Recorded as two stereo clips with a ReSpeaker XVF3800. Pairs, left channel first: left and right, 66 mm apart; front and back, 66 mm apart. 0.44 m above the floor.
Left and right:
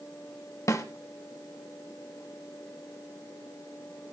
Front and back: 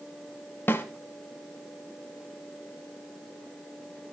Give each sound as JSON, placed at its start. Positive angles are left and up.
{"t": 0.7, "sound": "a snare drum", "azimuth_deg": 55, "distance_m": 1.7}